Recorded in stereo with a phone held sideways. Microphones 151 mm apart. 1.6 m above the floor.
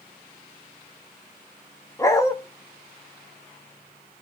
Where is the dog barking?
20° left (ahead or behind), 1.1 m.